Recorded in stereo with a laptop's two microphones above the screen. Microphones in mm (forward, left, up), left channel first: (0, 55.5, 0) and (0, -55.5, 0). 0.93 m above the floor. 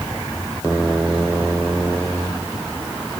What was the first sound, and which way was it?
Only background noise.